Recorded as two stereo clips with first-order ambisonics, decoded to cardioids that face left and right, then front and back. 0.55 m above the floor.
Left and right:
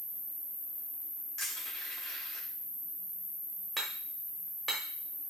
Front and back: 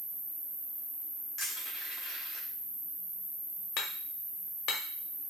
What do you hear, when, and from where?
0.0 s an insect: 125° left, 1.1 m
1.4 s crushing: 45° left, 1.5 m
3.8 s hammering: 5° right, 0.8 m